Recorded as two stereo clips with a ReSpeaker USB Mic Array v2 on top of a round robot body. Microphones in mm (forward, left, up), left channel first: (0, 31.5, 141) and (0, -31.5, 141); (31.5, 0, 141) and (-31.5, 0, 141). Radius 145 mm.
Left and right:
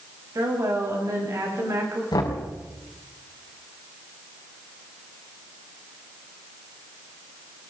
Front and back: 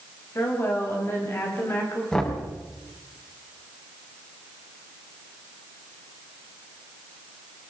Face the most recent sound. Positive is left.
turn(degrees=75)